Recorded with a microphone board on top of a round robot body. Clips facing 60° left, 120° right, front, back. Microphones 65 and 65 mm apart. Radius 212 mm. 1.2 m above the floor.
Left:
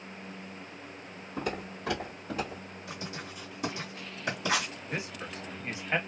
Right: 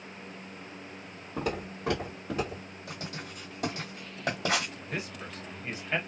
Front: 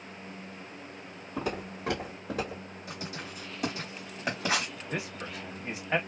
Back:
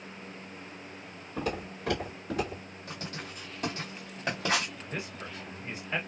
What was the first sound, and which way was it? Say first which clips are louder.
Footsteps: right 2 dB, even; 70° right.